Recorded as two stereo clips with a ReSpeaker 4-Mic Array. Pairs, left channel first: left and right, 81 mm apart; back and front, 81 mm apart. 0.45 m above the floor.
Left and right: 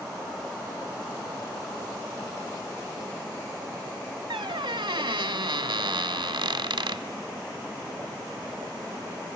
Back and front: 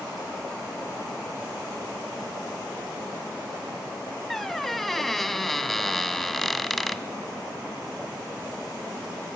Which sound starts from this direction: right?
A squeak, at 4.3 s.